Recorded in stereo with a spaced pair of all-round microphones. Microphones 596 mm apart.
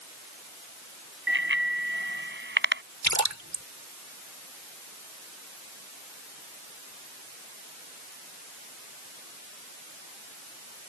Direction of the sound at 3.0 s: 25° right (ahead or behind).